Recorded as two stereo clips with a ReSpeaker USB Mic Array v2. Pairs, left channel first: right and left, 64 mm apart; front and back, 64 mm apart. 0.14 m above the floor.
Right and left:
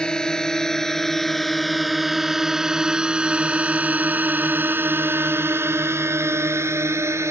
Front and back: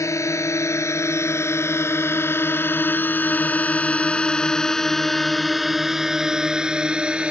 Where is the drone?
15° right; by 7.3 s 110° left.